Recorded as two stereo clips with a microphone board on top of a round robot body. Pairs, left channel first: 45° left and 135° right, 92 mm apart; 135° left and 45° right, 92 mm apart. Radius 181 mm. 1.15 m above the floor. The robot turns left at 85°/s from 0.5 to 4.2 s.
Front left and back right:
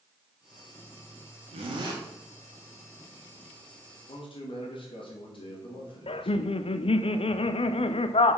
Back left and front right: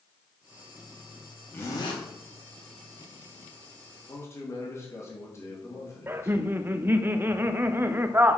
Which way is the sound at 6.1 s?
25° left.